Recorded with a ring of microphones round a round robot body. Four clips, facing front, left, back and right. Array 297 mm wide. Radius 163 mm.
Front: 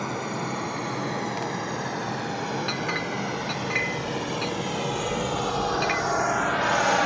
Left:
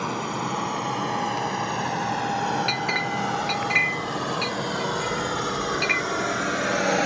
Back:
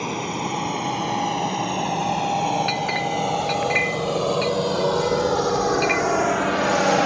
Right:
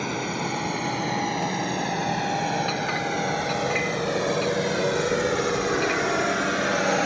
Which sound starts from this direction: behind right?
A drone, at 0.0 s.